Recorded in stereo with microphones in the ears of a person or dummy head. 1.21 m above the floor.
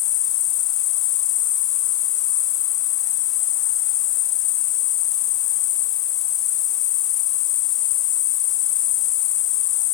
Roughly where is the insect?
Centre.